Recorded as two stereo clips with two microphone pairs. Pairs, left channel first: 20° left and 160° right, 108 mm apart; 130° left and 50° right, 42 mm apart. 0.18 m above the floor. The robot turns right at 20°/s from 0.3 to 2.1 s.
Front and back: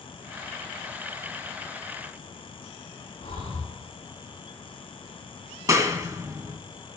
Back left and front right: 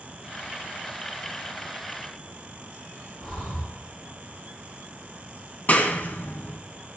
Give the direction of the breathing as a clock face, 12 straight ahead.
10 o'clock.